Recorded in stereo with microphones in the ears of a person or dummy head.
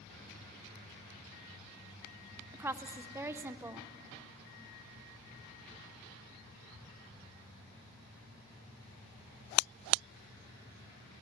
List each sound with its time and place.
2.5 s a woman speaking: 15° right (ahead or behind), 0.8 m